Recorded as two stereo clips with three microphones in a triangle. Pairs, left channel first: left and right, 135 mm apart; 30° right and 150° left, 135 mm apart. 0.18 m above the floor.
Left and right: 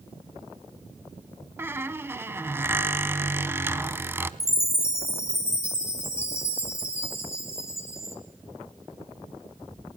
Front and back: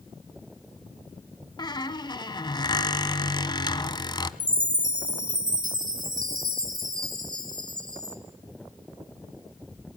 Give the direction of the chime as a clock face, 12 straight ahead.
7 o'clock.